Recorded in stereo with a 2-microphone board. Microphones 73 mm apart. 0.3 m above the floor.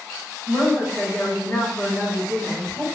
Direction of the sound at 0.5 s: 15° left (ahead or behind).